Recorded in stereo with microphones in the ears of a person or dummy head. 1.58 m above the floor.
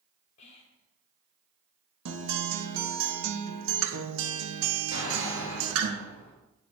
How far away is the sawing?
No sawing in this recording.